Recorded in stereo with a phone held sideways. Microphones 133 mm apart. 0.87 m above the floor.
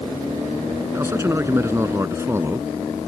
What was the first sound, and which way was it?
A man speaking, 20° right (ahead or behind).